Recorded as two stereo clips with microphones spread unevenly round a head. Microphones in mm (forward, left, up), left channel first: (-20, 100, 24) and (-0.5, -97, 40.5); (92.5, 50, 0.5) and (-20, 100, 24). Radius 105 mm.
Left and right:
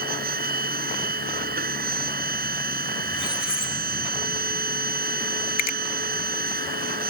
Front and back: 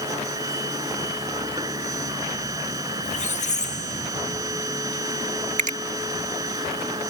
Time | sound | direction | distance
0.0 | a machine running | 130° right | ?
3.0 | a squeak | straight ahead | ?
5.6 | a finger snap | 140° left | ?